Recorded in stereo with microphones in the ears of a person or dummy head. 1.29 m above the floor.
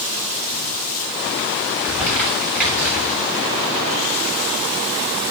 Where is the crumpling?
10° right (ahead or behind), 7.5 m.